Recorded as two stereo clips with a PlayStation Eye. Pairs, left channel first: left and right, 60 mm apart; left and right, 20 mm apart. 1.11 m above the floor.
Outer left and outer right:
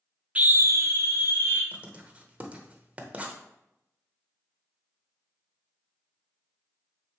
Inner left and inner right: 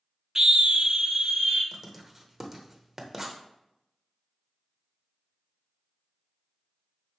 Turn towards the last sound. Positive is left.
turn(degrees=-25)  # may be behind; listen again after turning